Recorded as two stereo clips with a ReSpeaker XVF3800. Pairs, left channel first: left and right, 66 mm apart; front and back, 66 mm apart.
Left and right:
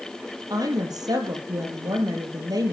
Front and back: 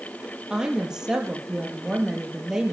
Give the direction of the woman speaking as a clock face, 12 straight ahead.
3 o'clock.